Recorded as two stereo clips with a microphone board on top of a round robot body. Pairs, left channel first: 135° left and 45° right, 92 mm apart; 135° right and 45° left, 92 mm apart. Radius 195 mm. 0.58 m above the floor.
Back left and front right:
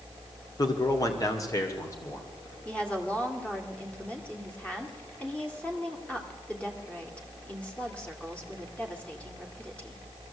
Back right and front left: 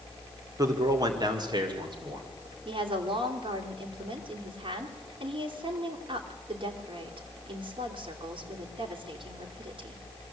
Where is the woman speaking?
60° left, 3 m.